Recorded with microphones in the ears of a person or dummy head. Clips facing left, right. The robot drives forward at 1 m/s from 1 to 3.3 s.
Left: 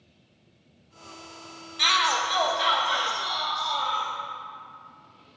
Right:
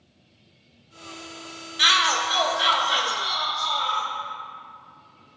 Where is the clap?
No clap in this recording.